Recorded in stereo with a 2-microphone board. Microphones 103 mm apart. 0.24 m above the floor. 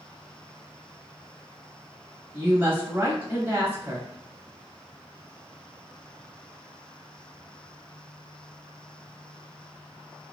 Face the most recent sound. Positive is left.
turn(degrees=-20)  # may be behind; listen again after turning